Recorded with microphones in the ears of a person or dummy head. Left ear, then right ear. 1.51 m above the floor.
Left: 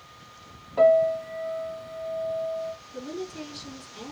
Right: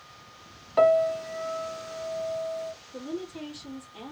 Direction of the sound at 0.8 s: 50° right (ahead or behind).